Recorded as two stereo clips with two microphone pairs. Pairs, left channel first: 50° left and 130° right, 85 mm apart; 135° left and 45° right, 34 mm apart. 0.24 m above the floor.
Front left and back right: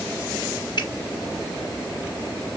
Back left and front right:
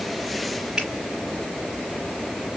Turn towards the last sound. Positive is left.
turn(degrees=25)